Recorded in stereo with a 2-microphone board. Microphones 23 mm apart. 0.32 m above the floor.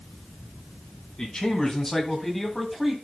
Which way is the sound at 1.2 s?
30° left (ahead or behind).